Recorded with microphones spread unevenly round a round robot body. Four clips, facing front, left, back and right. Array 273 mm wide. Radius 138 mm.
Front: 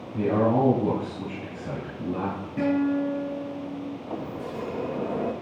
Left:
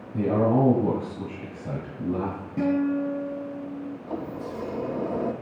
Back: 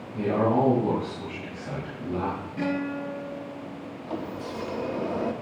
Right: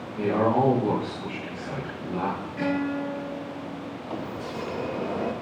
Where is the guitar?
60° left, 6 m.